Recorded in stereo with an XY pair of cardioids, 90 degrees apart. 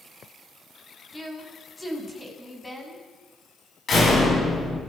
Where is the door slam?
50° left, 9 m.